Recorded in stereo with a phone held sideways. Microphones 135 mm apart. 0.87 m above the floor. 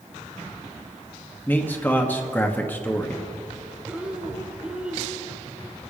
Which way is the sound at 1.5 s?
15° left (ahead or behind).